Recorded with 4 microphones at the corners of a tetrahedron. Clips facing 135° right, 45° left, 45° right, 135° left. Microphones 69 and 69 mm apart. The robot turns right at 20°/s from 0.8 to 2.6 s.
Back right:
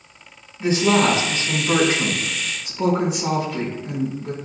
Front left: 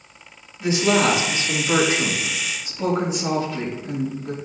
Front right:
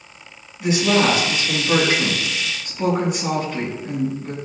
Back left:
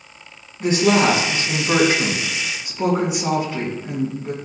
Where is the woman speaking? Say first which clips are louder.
Back right 1 dB, back left 2 dB; 175° left, 3.5 m; by 4.4 s 150° right, 3.5 m.